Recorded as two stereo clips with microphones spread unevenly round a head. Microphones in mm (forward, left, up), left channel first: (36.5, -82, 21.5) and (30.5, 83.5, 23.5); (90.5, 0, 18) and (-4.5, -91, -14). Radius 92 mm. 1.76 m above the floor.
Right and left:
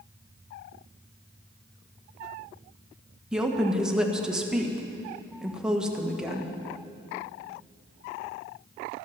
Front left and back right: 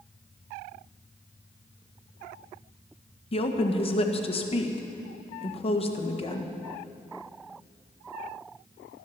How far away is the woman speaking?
About 1.7 m.